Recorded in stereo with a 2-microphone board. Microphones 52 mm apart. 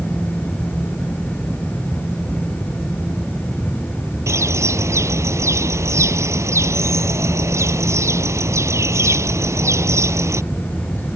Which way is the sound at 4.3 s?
70° right (ahead or behind).